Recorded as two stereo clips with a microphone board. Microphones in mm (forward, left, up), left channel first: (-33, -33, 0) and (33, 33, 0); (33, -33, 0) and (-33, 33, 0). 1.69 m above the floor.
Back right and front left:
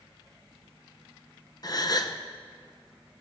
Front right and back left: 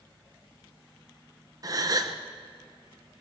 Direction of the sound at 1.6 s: Straight behind.